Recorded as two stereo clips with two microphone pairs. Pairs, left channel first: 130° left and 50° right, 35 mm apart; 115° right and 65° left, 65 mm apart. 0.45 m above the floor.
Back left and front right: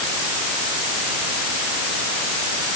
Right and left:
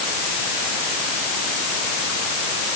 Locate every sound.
Only background noise.